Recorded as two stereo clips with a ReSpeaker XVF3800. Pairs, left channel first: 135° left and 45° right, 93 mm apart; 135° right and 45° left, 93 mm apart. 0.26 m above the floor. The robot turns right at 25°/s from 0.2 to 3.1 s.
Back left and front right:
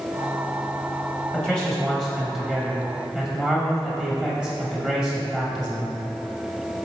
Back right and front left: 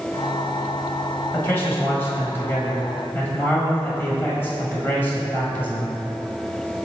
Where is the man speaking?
160° right, 1.5 m; by 5.9 s 115° right, 1.5 m.